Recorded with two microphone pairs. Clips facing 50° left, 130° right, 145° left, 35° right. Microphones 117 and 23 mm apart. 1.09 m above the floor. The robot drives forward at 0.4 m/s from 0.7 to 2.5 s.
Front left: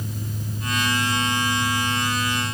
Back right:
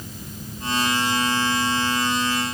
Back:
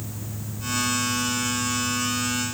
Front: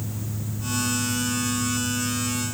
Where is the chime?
No chime in this recording.